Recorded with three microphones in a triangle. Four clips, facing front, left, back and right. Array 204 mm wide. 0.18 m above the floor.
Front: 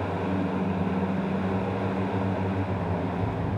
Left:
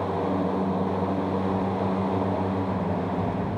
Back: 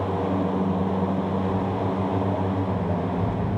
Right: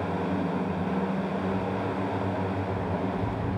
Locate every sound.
1.5 s footsteps: 165° left, 4.5 m; by 3.6 s straight behind, 4 m